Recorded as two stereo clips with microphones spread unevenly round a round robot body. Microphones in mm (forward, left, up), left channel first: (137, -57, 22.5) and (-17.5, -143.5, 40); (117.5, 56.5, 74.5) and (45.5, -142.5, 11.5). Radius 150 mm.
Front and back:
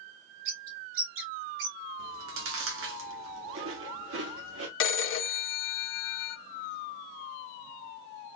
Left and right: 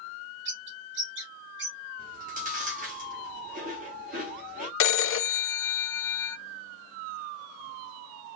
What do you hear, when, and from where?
0.5 s a bird: 155° right, 2.5 m
2.0 s chewing: 170° right, 1.0 m
4.8 s a phone ringing: 35° left, 0.6 m